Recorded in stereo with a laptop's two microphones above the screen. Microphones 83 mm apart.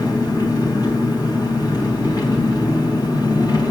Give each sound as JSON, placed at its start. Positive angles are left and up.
{"t": 0.0, "sound": "an engine running", "side_deg": 55, "distance_m": 4.5}